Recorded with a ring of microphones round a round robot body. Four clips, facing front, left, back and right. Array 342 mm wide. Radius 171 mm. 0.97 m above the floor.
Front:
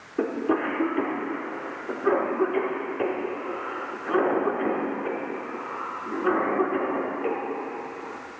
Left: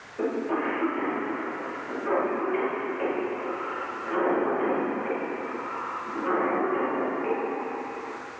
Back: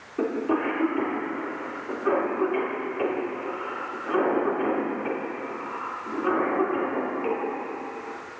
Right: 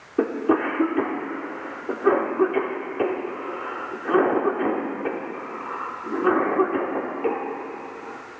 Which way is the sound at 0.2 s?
85° right.